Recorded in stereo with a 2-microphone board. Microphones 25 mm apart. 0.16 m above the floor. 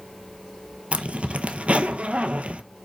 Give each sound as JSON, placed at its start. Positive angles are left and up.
{"t": 0.9, "sound": "a zipper", "side_deg": -55, "distance_m": 1.1}